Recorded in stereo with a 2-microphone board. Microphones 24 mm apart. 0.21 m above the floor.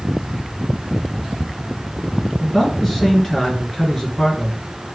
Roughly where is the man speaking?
Centre.